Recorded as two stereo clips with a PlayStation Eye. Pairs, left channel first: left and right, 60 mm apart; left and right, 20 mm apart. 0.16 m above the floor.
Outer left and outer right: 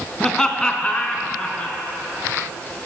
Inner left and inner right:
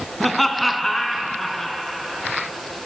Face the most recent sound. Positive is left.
turn(degrees=20)  # may be behind; listen again after turning